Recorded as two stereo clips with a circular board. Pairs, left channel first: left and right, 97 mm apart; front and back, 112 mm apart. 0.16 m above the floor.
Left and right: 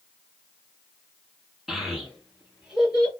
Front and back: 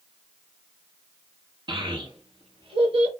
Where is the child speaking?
175° right, 1.1 m.